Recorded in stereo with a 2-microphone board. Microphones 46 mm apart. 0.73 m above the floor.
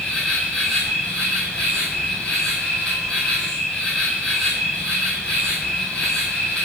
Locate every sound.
0.0 s an insect: 15° left (ahead or behind), 2 m